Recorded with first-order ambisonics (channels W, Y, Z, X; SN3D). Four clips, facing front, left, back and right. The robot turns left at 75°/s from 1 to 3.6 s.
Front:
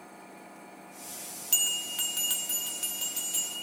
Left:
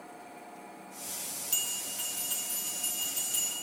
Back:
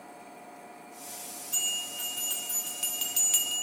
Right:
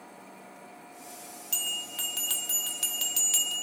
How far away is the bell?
About 0.5 m.